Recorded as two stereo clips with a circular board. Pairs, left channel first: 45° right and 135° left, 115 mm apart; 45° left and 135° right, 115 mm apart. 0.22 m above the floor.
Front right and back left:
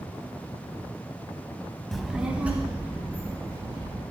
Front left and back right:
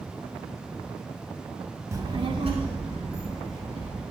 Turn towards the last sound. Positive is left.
turn(degrees=-155)